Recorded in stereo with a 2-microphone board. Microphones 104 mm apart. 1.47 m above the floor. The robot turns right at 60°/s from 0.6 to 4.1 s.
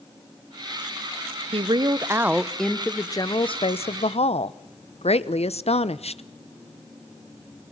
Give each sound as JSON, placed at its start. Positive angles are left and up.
{"t": 1.5, "sound": "a woman speaking", "azimuth_deg": -60, "distance_m": 0.8}